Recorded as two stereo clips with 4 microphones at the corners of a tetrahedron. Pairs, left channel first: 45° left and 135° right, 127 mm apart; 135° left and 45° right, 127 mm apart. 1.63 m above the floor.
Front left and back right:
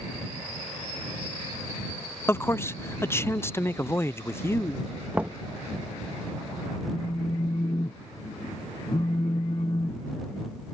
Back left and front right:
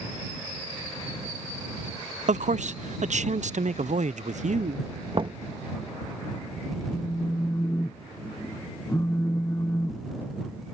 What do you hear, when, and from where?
2.3 s a man speaking: 25° right
5.1 s knocking: 60° right
6.9 s a phone buzzing: 75° left